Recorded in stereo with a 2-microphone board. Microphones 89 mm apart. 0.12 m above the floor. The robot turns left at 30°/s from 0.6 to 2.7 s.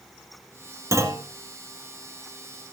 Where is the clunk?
30° right (ahead or behind), 1.7 m.